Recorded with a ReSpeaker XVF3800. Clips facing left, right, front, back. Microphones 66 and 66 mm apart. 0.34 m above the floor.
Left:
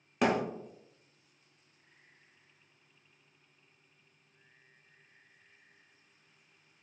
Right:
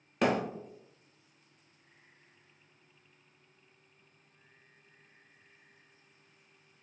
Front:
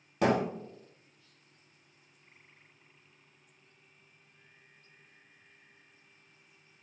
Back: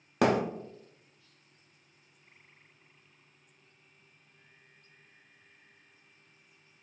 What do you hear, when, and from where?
0.2 s a thud: 175° left, 0.6 m